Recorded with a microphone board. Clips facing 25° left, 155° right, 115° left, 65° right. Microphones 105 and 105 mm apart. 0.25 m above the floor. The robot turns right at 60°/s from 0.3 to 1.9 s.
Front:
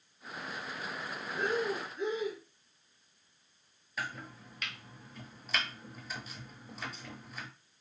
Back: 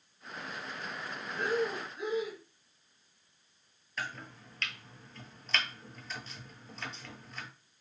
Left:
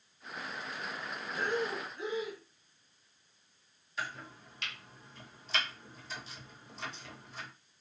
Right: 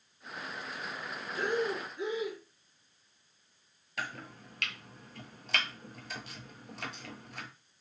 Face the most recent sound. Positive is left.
turn(degrees=-55)